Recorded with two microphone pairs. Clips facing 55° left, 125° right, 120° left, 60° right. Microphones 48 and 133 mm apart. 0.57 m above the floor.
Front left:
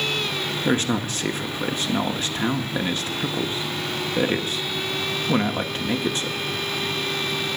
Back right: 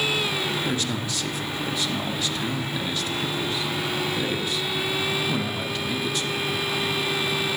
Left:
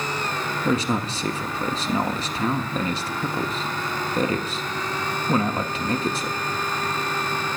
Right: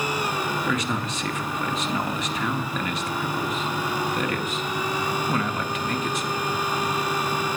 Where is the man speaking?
85° left, 0.8 m.